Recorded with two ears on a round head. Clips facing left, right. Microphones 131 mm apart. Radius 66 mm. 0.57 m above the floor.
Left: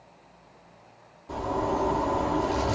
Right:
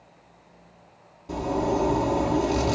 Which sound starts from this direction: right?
A zipper, at 1.3 s.